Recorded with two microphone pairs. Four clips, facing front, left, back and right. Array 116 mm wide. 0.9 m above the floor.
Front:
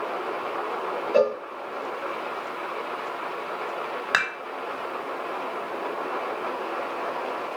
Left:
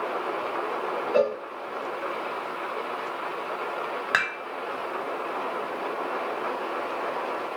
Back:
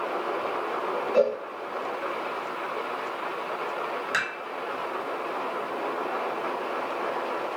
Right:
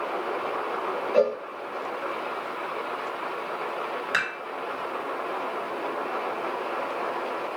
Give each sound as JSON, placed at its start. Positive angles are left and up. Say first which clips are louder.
{"t": 1.1, "sound": "a cowbell", "louder": "right 1 dB, front 2 dB", "azimuth_deg": 15, "distance_m": 1.1}
{"t": 4.1, "sound": "dishes clattering", "louder": "left 3 dB, front 7 dB", "azimuth_deg": 30, "distance_m": 1.4}